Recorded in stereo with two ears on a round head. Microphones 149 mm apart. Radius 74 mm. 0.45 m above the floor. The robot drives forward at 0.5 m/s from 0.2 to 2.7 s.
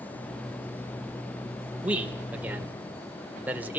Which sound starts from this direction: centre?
A man speaking, at 1.8 s.